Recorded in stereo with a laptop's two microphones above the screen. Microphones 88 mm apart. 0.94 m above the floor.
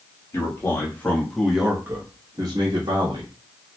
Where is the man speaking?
30° left (ahead or behind), 1.6 m; by 3.3 s 65° right (ahead or behind), 1.5 m.